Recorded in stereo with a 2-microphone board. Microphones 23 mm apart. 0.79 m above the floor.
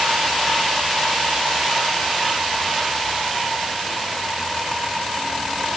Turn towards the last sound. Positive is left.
No sound to turn to.